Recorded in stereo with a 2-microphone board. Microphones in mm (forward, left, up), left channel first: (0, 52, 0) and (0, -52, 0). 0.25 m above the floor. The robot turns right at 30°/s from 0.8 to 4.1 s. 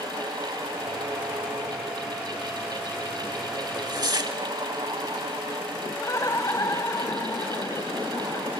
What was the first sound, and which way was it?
Tearing paper, 45° right (ahead or behind).